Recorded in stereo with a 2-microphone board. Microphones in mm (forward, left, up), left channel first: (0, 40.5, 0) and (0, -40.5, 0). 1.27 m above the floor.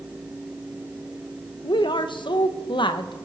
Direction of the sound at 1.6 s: 70° left (ahead or behind).